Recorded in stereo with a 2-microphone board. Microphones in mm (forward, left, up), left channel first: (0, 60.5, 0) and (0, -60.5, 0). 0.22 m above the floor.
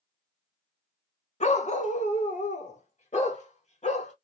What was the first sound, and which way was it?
A dog barking, 60° left (ahead or behind).